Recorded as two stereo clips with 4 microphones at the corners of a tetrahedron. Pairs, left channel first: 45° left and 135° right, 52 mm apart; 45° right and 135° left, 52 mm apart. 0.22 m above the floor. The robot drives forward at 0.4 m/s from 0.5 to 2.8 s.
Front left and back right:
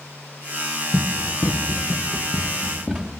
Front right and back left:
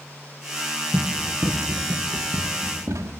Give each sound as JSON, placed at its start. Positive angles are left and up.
{"t": 0.9, "sound": "running footsteps", "azimuth_deg": 65, "distance_m": 2.5}